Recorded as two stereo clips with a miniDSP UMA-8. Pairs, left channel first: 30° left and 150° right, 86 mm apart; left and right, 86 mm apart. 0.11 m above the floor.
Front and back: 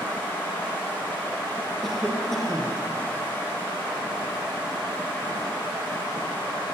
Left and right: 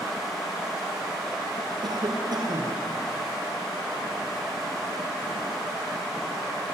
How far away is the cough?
About 5.5 m.